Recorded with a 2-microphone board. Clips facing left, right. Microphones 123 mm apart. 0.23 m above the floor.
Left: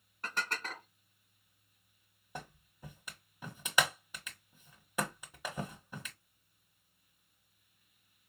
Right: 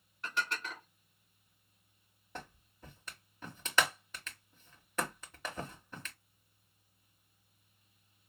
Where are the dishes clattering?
45° left (ahead or behind), 1.6 m.